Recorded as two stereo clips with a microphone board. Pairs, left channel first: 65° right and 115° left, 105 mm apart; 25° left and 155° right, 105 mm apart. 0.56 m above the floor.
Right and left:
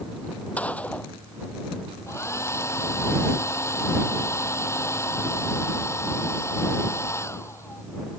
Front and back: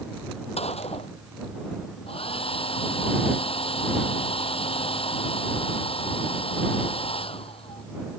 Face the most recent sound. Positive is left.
turn(degrees=-5)